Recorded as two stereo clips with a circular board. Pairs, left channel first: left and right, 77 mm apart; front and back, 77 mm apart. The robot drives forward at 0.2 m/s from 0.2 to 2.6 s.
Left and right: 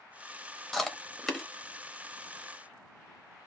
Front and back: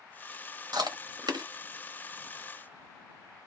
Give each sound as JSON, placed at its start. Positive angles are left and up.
{"t": 0.7, "sound": "chewing", "azimuth_deg": 175, "distance_m": 0.7}